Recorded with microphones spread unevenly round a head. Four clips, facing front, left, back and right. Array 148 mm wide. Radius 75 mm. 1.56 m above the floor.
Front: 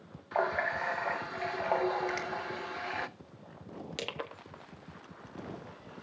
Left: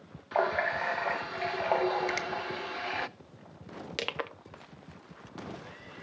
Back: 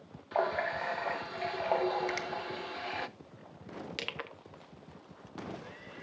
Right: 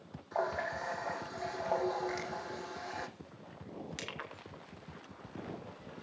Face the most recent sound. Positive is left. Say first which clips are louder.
# left 9 dB, front 3 dB
turn(degrees=65)